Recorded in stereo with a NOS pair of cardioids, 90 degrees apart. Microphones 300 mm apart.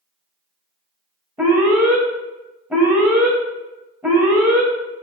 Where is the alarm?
5° right, 0.6 m.